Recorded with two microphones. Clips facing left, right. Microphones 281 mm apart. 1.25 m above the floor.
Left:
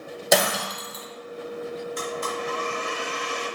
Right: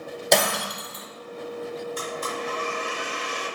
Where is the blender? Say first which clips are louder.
Left 1 dB; 50° right (ahead or behind), 1.7 m.